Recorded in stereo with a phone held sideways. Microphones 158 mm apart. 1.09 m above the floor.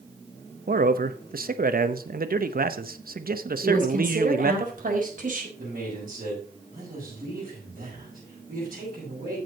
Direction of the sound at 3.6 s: 60° right (ahead or behind).